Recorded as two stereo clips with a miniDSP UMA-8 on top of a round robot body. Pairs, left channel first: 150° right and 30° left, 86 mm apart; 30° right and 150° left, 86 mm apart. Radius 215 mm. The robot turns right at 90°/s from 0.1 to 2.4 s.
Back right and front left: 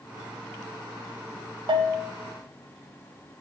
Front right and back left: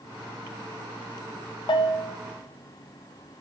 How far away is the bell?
About 0.5 m.